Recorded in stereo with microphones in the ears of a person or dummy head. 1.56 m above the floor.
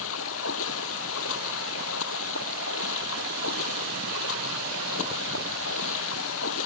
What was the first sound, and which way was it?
Running water, 75° left (ahead or behind).